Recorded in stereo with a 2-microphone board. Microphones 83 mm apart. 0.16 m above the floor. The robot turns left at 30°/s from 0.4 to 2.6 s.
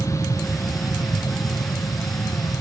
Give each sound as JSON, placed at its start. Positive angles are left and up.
{"t": 0.0, "sound": "an aircraft", "side_deg": 35}